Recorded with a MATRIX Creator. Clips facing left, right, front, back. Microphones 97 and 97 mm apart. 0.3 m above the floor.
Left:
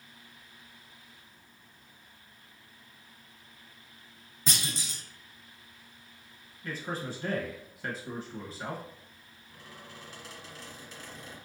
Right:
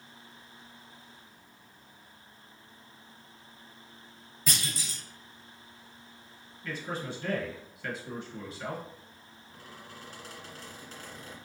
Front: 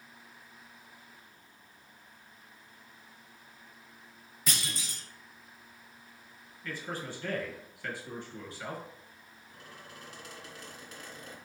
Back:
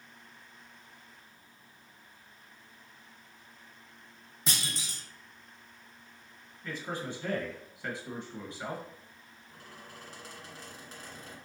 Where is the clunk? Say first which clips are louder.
Even, even; 140° left, 0.8 m.